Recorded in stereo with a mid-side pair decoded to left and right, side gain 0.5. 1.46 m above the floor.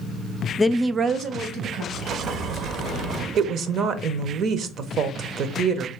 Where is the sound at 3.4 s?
60° right, 0.8 m.